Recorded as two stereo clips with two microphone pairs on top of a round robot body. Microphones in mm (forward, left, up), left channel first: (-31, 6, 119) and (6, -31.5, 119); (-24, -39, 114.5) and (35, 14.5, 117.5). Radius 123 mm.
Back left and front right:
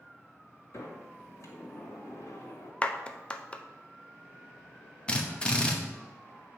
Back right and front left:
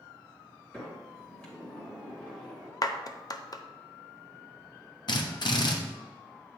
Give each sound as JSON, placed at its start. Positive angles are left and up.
{"t": 0.7, "sound": "a sliding door", "azimuth_deg": 150, "distance_m": 1.9}
{"t": 2.8, "sound": "a clap", "azimuth_deg": -160, "distance_m": 0.7}
{"t": 5.1, "sound": "a drill", "azimuth_deg": -155, "distance_m": 1.0}